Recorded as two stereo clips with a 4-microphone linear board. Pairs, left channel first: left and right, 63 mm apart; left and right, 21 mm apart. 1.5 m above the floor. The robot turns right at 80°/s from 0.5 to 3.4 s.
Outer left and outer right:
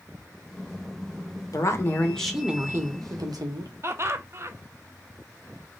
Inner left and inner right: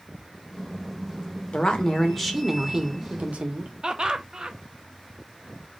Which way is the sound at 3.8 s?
45° right (ahead or behind).